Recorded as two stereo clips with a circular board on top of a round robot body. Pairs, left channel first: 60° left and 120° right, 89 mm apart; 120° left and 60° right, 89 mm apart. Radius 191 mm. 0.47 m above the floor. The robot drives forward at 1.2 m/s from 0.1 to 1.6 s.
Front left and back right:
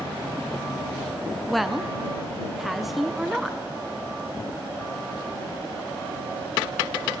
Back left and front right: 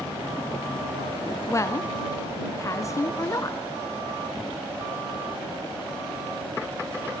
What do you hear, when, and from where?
1.5 s a woman speaking: 135° left, 0.7 m; by 3.6 s 150° left, 0.8 m